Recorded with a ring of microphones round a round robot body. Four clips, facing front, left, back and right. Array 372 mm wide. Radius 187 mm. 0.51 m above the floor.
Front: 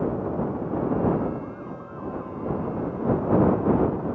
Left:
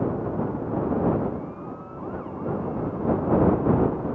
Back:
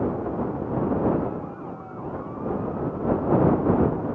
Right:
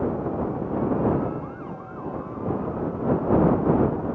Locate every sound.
Only background noise.